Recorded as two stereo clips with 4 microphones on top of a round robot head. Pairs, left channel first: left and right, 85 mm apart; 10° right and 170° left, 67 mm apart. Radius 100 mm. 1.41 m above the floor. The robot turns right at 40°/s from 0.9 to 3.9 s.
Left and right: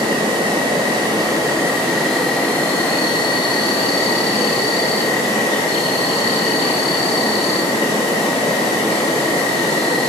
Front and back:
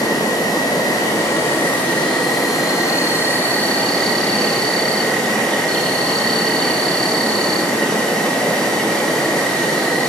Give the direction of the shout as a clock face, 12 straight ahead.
I don't hear a shout.